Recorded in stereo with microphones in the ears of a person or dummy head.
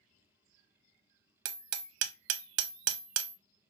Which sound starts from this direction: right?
Hammering, at 1.4 s.